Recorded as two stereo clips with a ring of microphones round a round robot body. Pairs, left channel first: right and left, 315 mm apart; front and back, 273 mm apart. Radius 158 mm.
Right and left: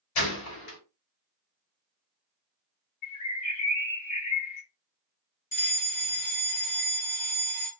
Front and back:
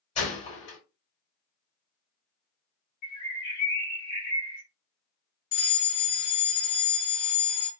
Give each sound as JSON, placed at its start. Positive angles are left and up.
{"t": 0.1, "sound": "a gunshot", "azimuth_deg": -70, "distance_m": 2.5}
{"t": 3.0, "sound": "a bird", "azimuth_deg": -60, "distance_m": 1.9}
{"t": 5.5, "sound": "a fire alarm", "azimuth_deg": -35, "distance_m": 2.5}